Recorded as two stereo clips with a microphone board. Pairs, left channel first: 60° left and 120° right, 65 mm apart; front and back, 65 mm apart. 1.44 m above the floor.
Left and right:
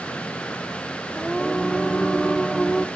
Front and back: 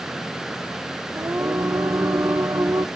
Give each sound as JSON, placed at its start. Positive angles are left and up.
{"t": 1.1, "sound": "singing", "azimuth_deg": 145, "distance_m": 1.2}